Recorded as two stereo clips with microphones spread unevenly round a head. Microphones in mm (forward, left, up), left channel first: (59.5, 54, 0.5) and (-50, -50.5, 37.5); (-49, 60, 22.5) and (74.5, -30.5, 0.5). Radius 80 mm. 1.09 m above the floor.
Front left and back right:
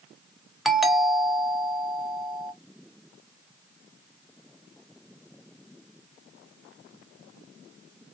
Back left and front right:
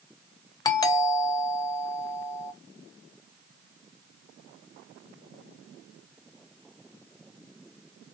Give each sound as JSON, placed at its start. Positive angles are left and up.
{"t": 0.7, "sound": "a doorbell", "azimuth_deg": 95, "distance_m": 0.9}